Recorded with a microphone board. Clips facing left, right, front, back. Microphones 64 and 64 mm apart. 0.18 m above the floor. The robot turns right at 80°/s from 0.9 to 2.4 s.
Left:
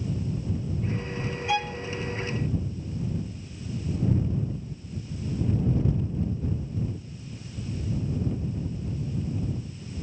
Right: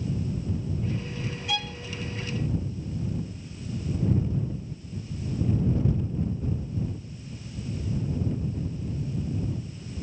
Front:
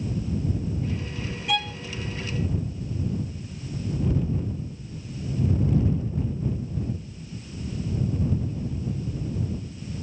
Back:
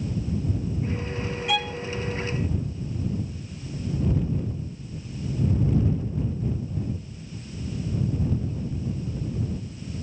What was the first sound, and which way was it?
A violin, 95° left.